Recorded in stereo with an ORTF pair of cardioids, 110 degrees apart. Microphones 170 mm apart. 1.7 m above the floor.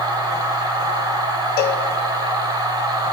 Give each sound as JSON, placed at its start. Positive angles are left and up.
{"t": 0.0, "sound": "a machine running", "azimuth_deg": -20, "distance_m": 1.7}
{"t": 1.6, "sound": "a cowbell", "azimuth_deg": 65, "distance_m": 1.0}